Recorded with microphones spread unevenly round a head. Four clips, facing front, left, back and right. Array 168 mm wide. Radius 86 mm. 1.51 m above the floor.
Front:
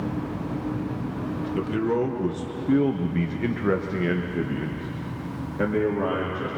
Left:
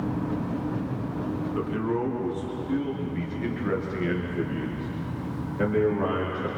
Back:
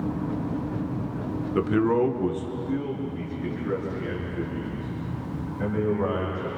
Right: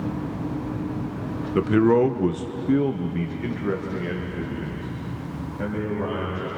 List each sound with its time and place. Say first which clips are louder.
1.6 s a man speaking: right 12 dB, back 3 dB; 105° right, 1.3 m; by 6.5 s 20° left, 4 m